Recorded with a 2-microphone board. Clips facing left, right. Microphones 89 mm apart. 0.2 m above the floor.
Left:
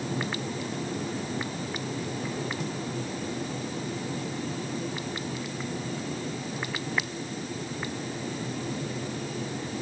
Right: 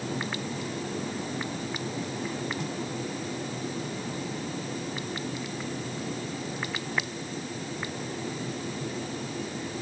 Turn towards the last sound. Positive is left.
No sound to turn to.